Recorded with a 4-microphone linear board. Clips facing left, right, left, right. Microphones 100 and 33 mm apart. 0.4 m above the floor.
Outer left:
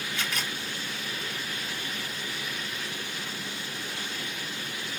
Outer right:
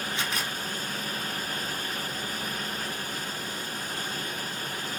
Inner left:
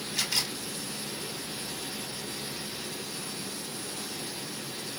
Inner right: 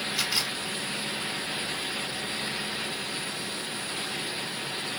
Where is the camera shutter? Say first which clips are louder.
Outer left 1 dB, even; 20° right (ahead or behind), 2.0 m.